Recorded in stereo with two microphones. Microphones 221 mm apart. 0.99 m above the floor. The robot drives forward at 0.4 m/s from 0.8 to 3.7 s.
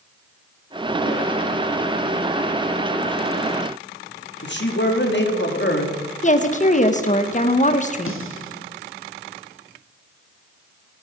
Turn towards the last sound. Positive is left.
turn(degrees=70)  # may be behind; listen again after turning